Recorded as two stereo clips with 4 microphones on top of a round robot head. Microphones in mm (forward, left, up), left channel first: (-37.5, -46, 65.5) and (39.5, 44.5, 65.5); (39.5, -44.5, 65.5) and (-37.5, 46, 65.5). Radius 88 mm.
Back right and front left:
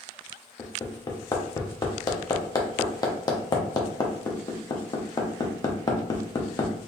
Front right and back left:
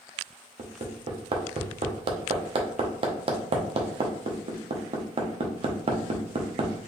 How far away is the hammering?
About 0.9 m.